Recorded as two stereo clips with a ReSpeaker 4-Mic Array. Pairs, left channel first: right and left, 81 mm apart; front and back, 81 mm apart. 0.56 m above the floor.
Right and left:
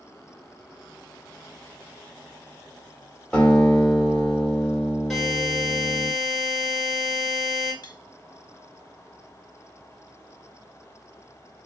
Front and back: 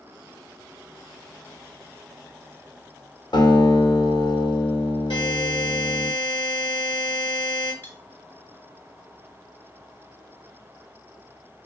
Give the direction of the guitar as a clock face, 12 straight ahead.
12 o'clock.